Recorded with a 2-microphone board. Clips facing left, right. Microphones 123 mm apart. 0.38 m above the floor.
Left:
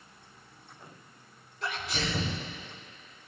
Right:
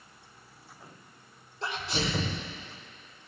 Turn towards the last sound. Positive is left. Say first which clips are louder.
# right 2 dB
turn(degrees=-30)  # may be behind; listen again after turning